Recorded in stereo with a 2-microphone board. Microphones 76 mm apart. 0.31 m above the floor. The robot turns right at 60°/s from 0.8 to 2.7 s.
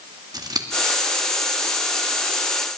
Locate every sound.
0.3 s scissors: 60° right (ahead or behind), 1.7 m